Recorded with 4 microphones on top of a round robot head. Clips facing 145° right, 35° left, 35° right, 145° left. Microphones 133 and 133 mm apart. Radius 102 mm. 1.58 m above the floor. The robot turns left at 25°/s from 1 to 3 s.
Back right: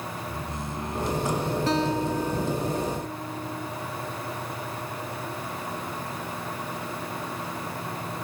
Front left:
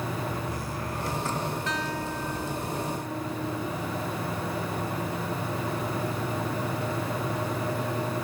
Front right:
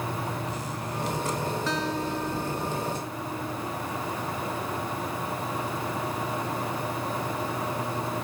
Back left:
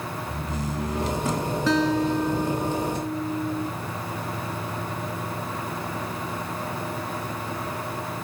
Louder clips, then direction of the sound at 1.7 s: Back right 7 dB, back left 7 dB; 155° left.